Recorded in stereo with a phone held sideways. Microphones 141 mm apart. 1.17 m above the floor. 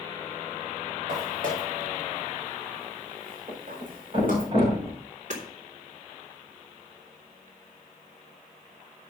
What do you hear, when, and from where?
1.1 s footsteps: 70° right (ahead or behind), 5 m
3.5 s a thud: 40° right (ahead or behind), 6 m
5.3 s hammering: 60° right (ahead or behind), 3.5 m